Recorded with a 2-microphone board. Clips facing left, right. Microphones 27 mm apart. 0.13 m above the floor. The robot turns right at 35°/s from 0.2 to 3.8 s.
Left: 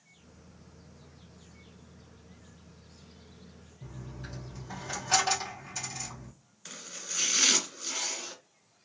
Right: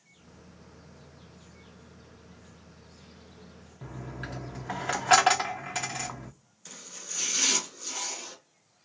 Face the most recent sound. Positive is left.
turn(degrees=25)  # may be behind; listen again after turning